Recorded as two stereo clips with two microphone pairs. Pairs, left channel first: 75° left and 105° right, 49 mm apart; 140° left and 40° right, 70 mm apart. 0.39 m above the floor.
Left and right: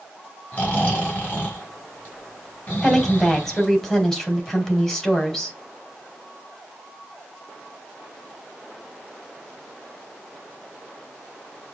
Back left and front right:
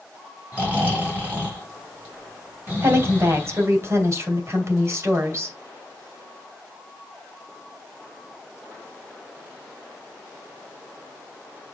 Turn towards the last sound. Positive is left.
turn(degrees=-5)